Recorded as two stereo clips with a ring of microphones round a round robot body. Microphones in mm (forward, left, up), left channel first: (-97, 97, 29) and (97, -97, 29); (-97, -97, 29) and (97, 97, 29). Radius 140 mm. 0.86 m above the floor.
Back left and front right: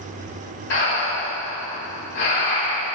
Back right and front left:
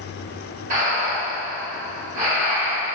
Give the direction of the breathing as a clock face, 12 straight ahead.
9 o'clock.